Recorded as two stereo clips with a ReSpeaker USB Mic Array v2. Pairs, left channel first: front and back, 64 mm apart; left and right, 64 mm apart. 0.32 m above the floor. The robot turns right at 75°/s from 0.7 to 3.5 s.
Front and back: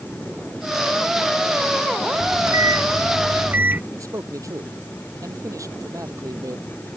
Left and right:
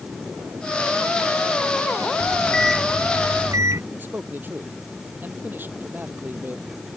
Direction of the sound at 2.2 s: 140° left.